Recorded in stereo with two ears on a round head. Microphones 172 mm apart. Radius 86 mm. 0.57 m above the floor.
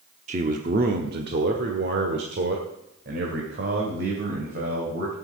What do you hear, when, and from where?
0.3 s a man speaking: 35° right (ahead or behind), 1.0 m; by 5.1 s 55° right (ahead or behind), 3 m